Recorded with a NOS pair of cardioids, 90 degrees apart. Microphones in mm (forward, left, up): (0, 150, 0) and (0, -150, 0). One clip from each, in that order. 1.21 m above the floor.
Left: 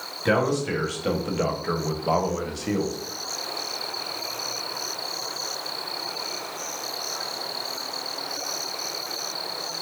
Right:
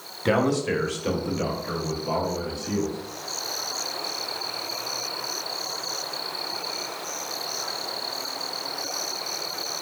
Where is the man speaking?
10° right, 1.1 m; by 3.0 s 75° left, 1.0 m.